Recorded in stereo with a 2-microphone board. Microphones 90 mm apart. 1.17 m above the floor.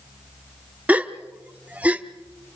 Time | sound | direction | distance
0.9 | a gasp | 15° right (ahead or behind) | 0.7 m